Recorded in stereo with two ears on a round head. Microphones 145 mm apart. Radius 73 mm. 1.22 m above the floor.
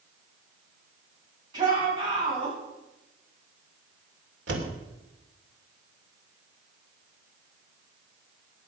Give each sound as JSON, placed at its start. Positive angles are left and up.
{"t": 1.5, "sound": "a shout", "side_deg": -25, "distance_m": 9.0}
{"t": 4.5, "sound": "a door slam", "side_deg": -85, "distance_m": 3.0}